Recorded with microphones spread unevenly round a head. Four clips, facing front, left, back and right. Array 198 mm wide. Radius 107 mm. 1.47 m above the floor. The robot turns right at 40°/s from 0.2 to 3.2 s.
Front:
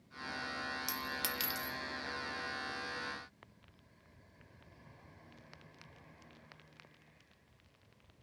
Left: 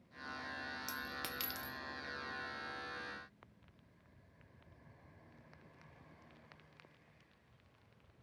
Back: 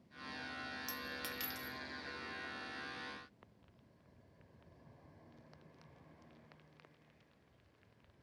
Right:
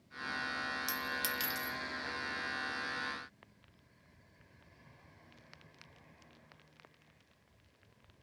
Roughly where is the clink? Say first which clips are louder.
Right 6 dB, front 5 dB; ahead left.